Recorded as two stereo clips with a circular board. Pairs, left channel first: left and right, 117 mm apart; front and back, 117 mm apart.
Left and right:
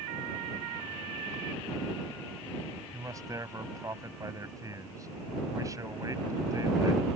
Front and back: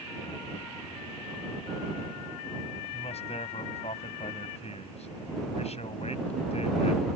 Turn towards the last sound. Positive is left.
turn(degrees=-30)